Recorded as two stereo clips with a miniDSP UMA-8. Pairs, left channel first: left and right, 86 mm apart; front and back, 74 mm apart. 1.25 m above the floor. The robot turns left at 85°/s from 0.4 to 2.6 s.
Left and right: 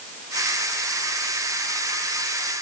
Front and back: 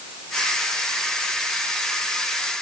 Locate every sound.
Only background noise.